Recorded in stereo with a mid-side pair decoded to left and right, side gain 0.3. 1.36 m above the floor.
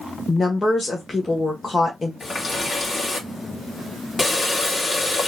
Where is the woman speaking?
40° left, 1.2 m.